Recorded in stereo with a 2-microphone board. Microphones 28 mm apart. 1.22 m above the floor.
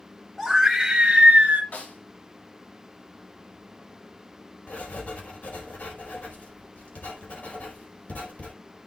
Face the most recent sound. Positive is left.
turn(degrees=75)  # may be behind; listen again after turning